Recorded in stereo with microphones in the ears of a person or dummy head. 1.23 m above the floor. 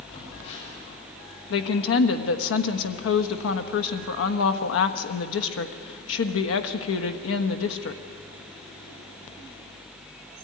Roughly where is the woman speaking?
Left.